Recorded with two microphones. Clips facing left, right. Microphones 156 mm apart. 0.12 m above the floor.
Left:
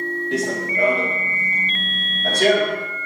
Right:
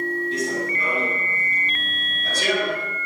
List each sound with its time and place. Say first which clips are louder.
0.3 s running footsteps: left 2 dB; 85° left, 5.5 m; by 2.9 s 60° left (ahead or behind), 6 m